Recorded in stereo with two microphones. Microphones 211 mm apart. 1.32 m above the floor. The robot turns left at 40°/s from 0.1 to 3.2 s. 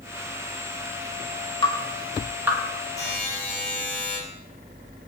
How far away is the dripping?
About 2.0 m.